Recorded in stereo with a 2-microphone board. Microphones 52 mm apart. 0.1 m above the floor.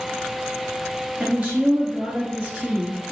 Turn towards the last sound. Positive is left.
turn(degrees=-25)  # may be behind; listen again after turning